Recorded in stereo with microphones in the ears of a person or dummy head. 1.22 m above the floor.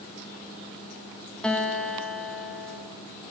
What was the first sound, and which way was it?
A guitar, centre (ahead or behind).